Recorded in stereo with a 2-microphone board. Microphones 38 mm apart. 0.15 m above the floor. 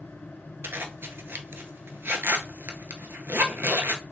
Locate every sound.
0.6 s a zipper: 65° right (ahead or behind), 0.5 m